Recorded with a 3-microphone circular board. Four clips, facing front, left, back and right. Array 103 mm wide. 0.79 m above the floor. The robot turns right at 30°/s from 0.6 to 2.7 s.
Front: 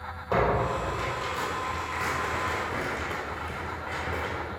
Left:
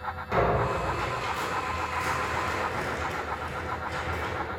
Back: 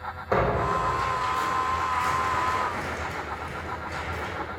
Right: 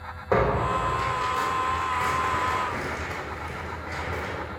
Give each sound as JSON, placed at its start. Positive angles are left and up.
{"t": 0.3, "sound": "tearing paper", "azimuth_deg": -85, "distance_m": 3.5}